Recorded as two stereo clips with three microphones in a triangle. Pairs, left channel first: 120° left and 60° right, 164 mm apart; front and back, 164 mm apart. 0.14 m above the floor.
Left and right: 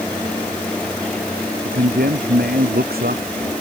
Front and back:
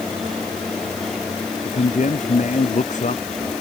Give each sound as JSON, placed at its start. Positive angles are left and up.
{"t": 1.6, "sound": "a man speaking", "azimuth_deg": -40}